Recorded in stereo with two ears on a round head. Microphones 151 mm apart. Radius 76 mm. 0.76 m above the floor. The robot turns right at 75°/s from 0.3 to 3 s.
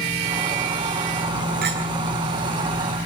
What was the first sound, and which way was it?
A clink, 60° right (ahead or behind).